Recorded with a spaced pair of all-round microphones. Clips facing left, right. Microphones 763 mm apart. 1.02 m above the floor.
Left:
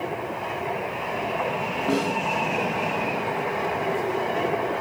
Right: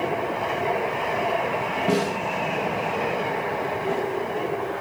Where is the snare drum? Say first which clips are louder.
Right 1 dB; 35° right (ahead or behind), 0.8 m.